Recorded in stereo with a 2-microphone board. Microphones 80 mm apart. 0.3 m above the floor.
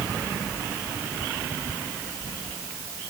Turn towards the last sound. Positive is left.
No sound to turn to.